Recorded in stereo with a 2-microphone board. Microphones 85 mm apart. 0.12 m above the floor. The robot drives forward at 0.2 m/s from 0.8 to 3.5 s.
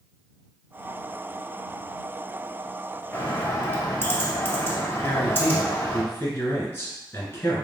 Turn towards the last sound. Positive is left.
turn(degrees=25)  # may be behind; listen again after turning